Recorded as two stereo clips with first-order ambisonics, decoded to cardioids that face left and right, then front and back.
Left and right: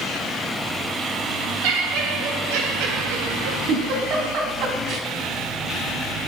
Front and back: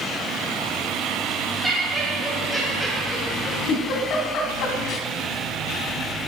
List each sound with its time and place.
1.6 s laughter: 105° right, 3.5 m; by 3.6 s 75° right, 2.5 m
3.7 s a giggle: 45° right, 2.5 m